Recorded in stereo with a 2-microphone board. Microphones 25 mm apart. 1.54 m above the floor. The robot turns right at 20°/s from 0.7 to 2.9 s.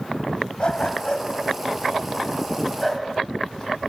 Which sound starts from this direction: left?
A dog barking, at 0.6 s.